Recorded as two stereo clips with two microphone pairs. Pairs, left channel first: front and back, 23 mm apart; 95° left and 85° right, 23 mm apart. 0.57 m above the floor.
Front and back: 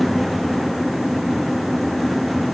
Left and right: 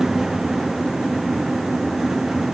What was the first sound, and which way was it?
Only background noise.